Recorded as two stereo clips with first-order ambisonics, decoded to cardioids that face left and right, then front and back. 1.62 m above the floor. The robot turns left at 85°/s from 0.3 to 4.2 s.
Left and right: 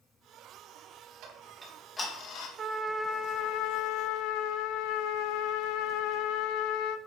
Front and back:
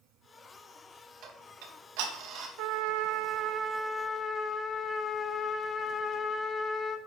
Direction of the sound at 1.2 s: 130° right.